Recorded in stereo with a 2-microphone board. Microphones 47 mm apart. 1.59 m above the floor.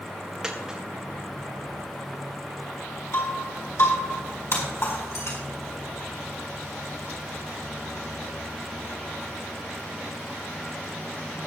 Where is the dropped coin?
10° right (ahead or behind), 1.9 m.